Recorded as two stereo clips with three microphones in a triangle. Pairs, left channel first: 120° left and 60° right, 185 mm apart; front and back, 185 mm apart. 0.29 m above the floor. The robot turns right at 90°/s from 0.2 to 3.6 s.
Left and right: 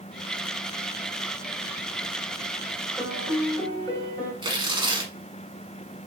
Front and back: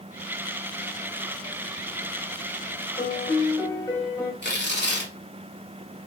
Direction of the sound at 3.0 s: 5° left.